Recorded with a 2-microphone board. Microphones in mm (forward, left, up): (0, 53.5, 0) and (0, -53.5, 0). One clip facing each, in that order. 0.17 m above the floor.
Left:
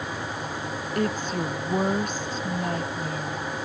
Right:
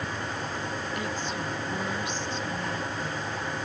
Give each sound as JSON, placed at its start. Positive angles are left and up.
{"t": 0.9, "sound": "a woman speaking", "side_deg": 45}